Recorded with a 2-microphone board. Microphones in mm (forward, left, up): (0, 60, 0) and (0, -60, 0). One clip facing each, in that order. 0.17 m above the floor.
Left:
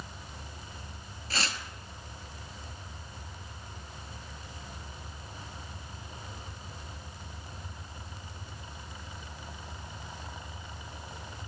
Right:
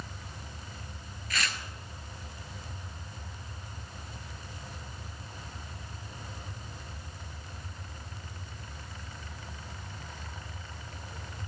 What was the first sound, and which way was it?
Tearing paper, 35° left (ahead or behind).